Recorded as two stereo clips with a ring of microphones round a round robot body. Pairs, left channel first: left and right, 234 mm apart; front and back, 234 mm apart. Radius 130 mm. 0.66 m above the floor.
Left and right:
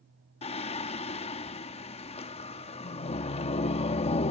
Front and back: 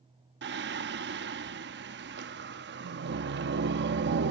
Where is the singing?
150° left.